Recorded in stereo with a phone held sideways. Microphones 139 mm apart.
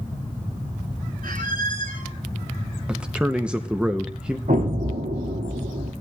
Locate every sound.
1.2 s a squeak: 85° right, 3 m
2.9 s a man speaking: 5° right (ahead or behind), 0.8 m
4.5 s an explosion: 70° right (ahead or behind), 3 m